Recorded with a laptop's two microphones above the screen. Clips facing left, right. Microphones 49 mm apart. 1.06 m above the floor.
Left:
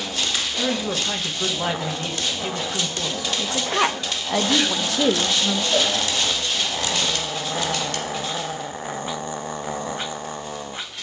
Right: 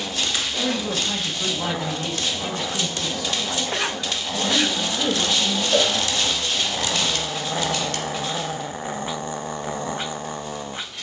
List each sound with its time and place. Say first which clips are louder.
0.6 s a man speaking: left 1 dB; 25° left (ahead or behind), 1.0 m
3.4 s a woman speaking: left 7 dB; 80° left, 1.0 m
5.7 s a cowbell: right 2 dB; 40° right (ahead or behind), 4 m